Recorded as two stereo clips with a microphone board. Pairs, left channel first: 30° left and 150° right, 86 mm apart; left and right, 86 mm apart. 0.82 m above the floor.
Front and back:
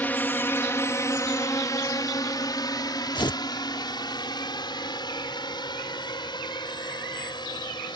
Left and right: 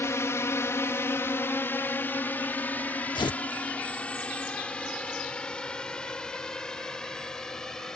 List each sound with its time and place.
0.0 s a drone: 80° left; by 8.0 s 5° left
3.1 s tearing paper: 65° left